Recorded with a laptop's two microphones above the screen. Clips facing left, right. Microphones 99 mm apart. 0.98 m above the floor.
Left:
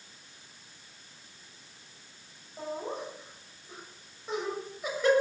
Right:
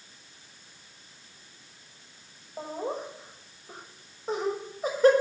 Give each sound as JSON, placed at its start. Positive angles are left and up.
{"t": 2.6, "sound": "laughter", "side_deg": -35, "distance_m": 6.0}